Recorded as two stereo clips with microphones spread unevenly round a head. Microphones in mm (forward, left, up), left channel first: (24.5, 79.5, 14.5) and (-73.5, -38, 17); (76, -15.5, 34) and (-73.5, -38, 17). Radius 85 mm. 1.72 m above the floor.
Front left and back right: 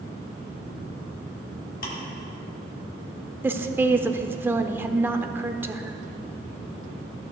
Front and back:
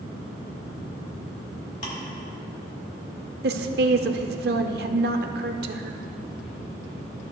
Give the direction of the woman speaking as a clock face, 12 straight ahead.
7 o'clock.